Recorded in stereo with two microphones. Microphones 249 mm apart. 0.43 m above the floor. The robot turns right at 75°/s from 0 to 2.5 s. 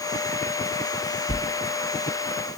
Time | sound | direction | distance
1.3 | a sliding door | 20° left (ahead or behind) | 1.3 m